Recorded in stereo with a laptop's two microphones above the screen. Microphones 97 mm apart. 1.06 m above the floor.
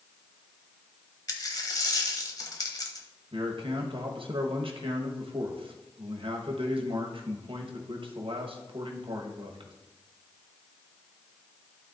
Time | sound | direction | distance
1.3 | a dropped coin | 40° left (ahead or behind) | 1.2 m
3.3 | a man speaking | 65° right (ahead or behind) | 1.3 m